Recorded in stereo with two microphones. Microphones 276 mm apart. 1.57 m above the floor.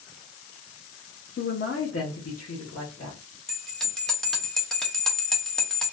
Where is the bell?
Centre (ahead or behind), 0.7 m.